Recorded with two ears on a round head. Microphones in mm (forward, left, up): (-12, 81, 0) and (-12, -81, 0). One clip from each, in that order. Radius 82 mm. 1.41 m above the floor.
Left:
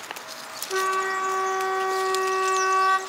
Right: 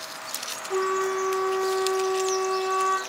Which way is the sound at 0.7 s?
40° left (ahead or behind).